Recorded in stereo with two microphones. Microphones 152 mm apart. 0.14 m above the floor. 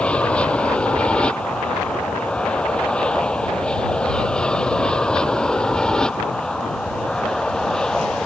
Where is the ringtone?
I don't hear a ringtone.